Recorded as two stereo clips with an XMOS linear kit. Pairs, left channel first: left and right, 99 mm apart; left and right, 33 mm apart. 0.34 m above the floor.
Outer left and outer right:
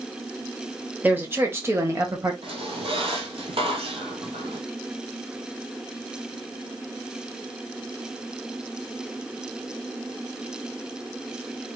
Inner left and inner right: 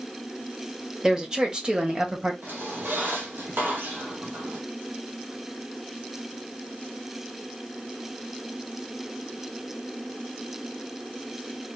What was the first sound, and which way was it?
A woman speaking, 20° right (ahead or behind).